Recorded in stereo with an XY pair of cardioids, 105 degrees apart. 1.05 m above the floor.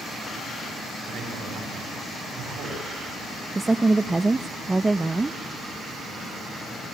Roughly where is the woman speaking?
Ahead right.